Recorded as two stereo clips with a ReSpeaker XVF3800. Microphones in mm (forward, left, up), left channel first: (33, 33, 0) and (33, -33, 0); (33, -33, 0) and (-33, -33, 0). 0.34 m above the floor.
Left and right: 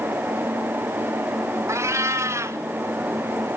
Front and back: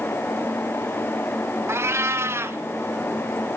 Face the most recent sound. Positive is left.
turn(degrees=-130)